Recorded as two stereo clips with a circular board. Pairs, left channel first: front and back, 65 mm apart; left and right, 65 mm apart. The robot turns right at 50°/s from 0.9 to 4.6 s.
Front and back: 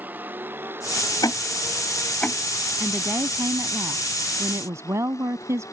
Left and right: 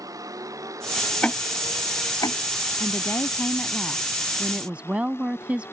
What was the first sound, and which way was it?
A vehicle, 115° right.